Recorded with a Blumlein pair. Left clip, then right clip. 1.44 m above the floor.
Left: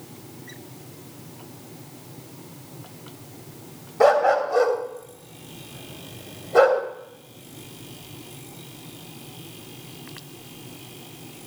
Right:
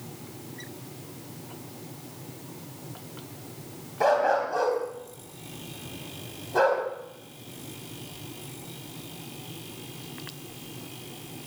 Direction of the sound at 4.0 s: 45° left.